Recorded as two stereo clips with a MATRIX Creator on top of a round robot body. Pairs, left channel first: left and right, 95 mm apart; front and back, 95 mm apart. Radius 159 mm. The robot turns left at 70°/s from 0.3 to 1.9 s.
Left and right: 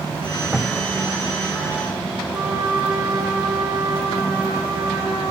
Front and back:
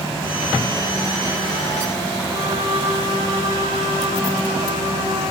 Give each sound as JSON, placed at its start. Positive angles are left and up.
{"t": 2.3, "sound": "a trumpet", "azimuth_deg": -155, "distance_m": 2.5}